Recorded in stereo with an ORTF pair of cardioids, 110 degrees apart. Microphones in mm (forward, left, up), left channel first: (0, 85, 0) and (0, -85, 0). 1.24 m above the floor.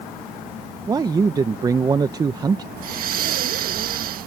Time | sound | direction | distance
0.9 | a man speaking | 20° right | ?
2.8 | breathing | 60° right | ?